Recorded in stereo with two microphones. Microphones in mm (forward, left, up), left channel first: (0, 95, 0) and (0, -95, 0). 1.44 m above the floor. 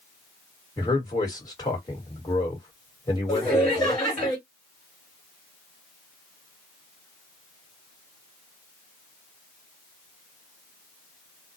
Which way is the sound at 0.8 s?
20° left (ahead or behind).